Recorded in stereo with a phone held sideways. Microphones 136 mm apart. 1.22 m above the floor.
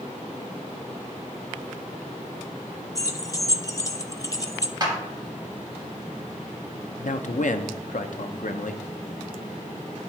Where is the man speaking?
70° left (ahead or behind), 0.6 m.